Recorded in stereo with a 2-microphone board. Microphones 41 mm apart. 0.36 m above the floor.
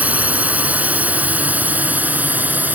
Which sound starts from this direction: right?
A drone, at 0.0 s.